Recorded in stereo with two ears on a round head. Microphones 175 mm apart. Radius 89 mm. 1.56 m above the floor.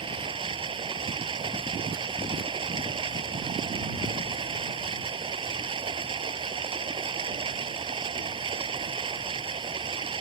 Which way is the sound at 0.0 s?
25° right (ahead or behind).